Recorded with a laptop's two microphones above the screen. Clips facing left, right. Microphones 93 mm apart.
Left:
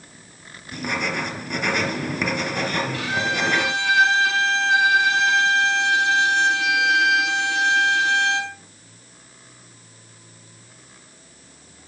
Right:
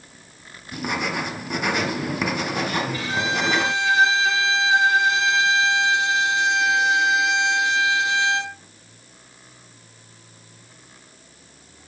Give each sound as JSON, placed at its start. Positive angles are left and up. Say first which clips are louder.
{"t": 0.7, "sound": "writing", "louder": "even", "side_deg": -10, "distance_m": 3.0}
{"t": 2.9, "sound": "a violin", "louder": "even", "side_deg": 65, "distance_m": 5.5}